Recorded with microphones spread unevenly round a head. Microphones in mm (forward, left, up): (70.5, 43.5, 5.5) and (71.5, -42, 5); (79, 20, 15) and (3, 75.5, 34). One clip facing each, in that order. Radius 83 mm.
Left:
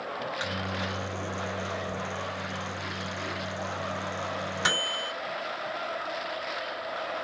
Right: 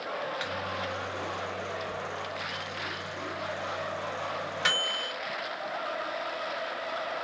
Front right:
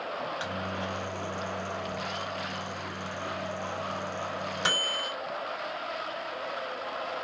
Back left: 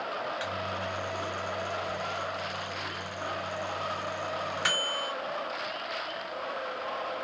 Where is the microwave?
30° left, 0.6 m.